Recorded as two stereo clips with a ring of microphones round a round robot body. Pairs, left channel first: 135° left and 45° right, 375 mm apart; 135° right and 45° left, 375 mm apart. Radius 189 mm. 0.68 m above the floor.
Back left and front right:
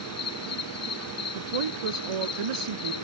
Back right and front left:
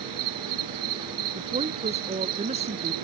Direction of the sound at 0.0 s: 85° left.